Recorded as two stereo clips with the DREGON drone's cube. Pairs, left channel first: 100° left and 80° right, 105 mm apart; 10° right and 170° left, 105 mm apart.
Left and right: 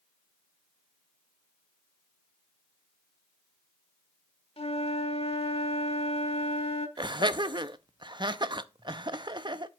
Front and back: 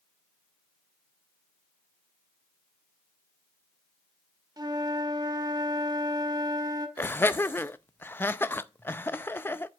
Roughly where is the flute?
Behind left.